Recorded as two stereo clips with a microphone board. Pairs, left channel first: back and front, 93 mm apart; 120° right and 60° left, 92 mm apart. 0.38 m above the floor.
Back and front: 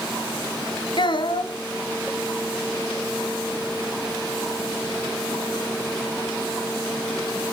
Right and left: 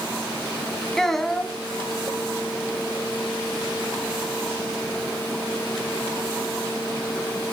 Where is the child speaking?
155° left, 1.6 m.